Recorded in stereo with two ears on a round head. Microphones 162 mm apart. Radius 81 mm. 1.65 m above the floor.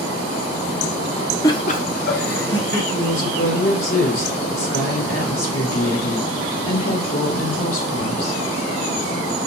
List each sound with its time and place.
1.4 s laughter: 15° left (ahead or behind), 0.6 m; by 2.8 s 70° left (ahead or behind), 2 m
2.9 s a woman speaking: 85° left, 3.5 m